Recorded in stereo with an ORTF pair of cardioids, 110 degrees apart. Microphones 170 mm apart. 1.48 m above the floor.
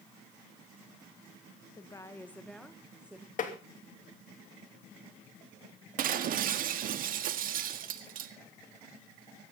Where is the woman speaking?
25° left, 1.5 m; by 3.3 s 10° right, 2.0 m.